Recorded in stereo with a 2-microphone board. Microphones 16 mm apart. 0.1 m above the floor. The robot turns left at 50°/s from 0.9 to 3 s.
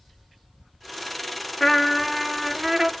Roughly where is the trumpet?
Ahead.